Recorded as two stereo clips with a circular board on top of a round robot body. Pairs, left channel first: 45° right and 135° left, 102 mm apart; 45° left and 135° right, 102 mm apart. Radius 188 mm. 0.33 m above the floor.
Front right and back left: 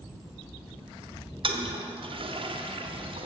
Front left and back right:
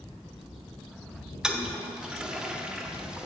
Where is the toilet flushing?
145° left, 1.2 m.